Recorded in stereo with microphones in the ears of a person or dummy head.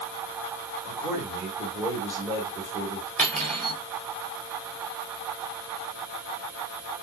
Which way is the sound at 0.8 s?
5° right (ahead or behind).